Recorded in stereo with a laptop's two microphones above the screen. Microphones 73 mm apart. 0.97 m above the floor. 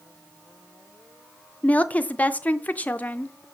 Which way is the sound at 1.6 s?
20° left (ahead or behind).